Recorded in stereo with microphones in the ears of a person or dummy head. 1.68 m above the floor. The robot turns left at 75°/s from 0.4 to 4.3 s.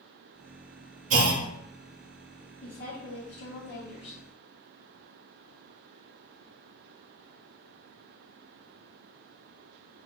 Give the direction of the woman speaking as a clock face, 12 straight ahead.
7 o'clock.